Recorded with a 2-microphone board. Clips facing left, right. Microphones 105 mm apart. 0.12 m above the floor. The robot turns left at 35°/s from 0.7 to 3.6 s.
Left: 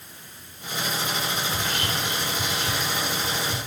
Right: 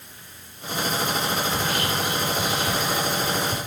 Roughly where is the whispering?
Right.